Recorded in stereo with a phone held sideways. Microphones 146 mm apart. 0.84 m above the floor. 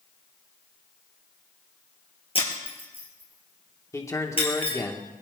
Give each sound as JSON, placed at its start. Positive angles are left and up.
{"t": 2.4, "sound": "breaking glass", "side_deg": 40, "distance_m": 3.5}
{"t": 3.9, "sound": "a man speaking", "side_deg": 20, "distance_m": 1.9}